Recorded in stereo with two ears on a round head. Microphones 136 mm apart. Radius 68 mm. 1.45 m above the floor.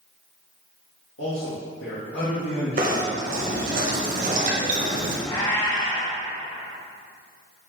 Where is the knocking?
55° right (ahead or behind), 1.2 m.